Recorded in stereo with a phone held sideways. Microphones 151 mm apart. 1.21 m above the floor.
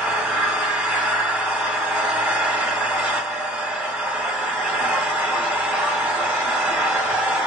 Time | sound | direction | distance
0.0 | an engine running | 10° right (ahead or behind) | 1.4 m